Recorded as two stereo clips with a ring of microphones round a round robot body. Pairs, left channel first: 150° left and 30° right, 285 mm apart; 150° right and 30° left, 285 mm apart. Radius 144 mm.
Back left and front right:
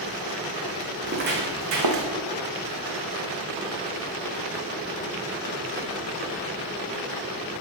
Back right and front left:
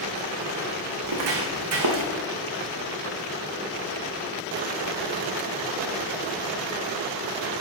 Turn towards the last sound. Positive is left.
turn(degrees=-15)